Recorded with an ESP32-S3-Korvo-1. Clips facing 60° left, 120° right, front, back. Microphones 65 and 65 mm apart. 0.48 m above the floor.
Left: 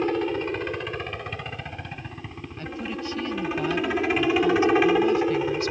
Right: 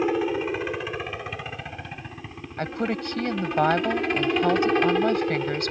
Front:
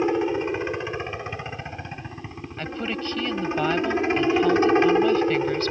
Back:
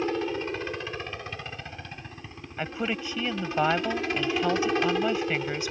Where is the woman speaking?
105° right.